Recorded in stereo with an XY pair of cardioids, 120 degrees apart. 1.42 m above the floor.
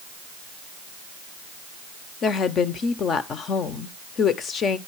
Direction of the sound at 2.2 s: 50° left.